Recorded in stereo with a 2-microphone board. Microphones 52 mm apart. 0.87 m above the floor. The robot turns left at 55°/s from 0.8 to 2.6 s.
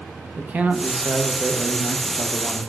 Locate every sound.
0.4 s a man speaking: 130° right, 0.6 m; by 2.6 s 130° left, 0.6 m